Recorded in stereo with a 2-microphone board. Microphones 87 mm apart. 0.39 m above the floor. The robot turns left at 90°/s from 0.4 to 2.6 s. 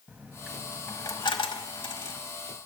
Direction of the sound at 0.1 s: 15° right (ahead or behind).